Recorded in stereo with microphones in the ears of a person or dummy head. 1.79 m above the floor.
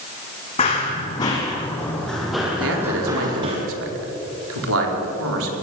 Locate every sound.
0.6 s running footsteps: 30° left (ahead or behind), 5 m; by 3.6 s 30° right (ahead or behind), 3.5 m
2.6 s a man speaking: 80° right, 4 m